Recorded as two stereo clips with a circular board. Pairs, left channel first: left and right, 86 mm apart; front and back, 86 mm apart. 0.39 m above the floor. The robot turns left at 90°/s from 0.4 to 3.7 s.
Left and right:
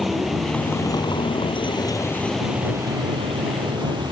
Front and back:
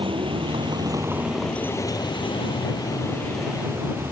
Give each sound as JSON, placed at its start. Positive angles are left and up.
{"t": 0.0, "sound": "a vehicle", "azimuth_deg": 180}